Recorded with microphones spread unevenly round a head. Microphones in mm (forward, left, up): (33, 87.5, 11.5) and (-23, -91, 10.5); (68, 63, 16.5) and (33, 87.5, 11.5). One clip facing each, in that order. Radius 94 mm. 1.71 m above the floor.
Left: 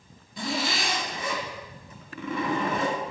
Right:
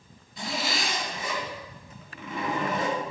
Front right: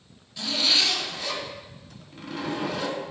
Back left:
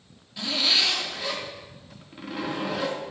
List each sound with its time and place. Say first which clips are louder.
0.4 s a zipper: left 2 dB, even; 65° left, 3 m